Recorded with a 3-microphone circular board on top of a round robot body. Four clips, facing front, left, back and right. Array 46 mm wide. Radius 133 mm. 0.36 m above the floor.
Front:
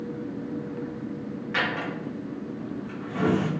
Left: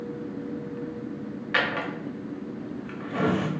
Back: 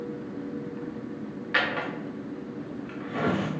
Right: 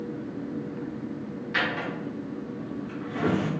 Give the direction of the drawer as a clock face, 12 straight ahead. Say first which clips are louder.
Left 2 dB, back 1 dB; 8 o'clock.